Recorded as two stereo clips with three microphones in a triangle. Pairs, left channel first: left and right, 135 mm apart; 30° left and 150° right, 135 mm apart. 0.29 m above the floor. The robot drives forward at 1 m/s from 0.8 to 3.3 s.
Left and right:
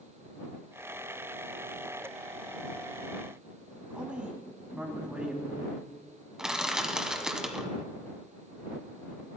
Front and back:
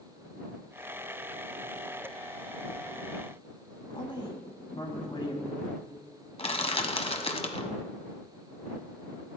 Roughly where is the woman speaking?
Ahead.